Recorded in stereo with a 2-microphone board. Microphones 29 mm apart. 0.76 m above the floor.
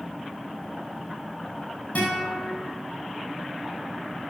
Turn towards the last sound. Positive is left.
turn(degrees=70)  # may be behind; listen again after turning